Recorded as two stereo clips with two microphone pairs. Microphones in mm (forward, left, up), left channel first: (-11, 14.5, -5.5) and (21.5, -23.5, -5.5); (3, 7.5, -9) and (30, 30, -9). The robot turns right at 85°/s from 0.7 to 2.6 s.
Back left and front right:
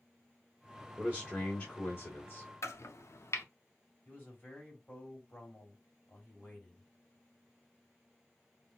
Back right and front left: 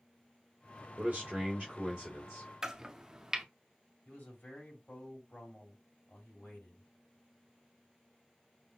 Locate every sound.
1.0 s a man speaking: 55° left, 2 m; by 2.5 s 175° right, 2 m
2.6 s chopping: 105° left, 0.5 m
4.0 s a man speaking: 175° right, 2.5 m